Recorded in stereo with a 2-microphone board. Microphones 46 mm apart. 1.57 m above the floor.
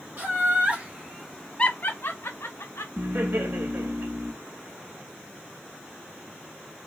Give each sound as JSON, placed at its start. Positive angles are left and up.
{"t": 0.2, "sound": "laughter", "side_deg": -40, "distance_m": 1.7}
{"t": 3.0, "sound": "laughter", "side_deg": -60, "distance_m": 1.7}